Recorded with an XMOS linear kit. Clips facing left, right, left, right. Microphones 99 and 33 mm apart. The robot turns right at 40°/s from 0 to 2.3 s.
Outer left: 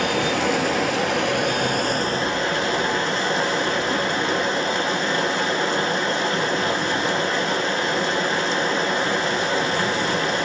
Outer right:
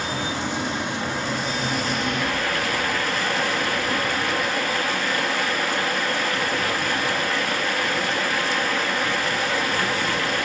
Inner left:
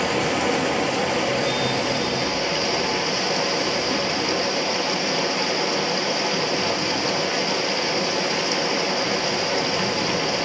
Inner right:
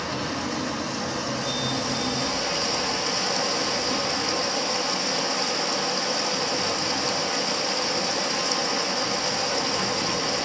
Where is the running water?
65° left, 1.0 m; by 10.5 s 155° left, 1.0 m.